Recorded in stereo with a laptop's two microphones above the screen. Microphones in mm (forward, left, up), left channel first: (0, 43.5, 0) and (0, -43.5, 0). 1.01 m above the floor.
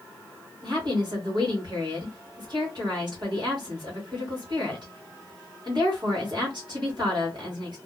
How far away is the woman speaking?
About 1.2 m.